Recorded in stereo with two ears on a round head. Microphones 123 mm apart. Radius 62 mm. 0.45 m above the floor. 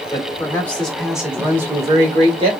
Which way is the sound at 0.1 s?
25° left (ahead or behind).